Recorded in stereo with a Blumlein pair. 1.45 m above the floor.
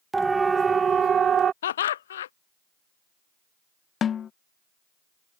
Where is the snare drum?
25° left.